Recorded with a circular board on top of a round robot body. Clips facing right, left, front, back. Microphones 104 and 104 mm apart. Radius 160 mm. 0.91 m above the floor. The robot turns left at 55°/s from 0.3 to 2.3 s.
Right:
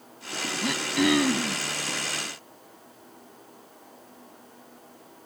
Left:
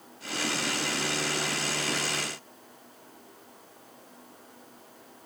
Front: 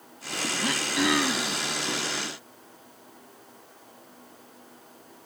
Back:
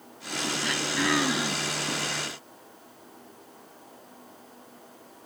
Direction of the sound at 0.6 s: 55° right.